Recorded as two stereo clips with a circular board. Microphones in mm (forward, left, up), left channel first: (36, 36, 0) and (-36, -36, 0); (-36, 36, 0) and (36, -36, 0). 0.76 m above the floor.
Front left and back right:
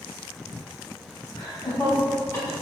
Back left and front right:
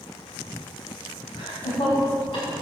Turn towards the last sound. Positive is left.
turn(degrees=105)